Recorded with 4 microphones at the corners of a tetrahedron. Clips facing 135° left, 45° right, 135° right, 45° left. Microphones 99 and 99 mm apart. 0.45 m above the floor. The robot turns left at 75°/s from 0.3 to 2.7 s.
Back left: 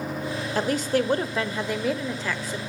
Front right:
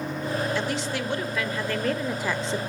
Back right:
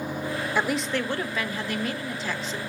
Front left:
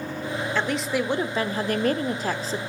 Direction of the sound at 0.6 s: 155° left.